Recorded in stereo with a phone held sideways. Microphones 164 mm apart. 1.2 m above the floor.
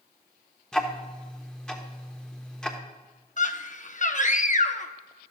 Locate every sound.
0.7 s ticking: 5° left (ahead or behind), 1.2 m
3.4 s a scream: 50° left (ahead or behind), 0.8 m